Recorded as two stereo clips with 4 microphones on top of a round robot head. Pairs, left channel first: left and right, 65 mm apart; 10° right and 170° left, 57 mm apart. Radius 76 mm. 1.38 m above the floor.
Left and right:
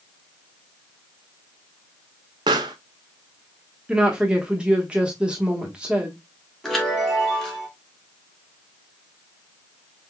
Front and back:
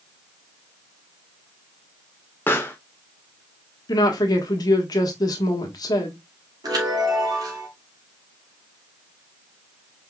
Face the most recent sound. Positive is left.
turn(degrees=175)